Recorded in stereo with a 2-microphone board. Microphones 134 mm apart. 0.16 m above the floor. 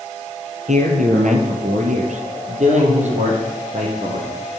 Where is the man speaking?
65° right (ahead or behind), 3 m; by 4.3 s 50° right (ahead or behind), 5.5 m.